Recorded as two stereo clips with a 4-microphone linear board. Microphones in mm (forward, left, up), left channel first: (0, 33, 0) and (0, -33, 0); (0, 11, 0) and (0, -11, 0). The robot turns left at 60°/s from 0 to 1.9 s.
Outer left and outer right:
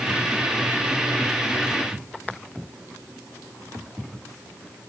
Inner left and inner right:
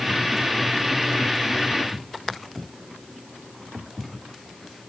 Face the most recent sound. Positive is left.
No sound to turn to.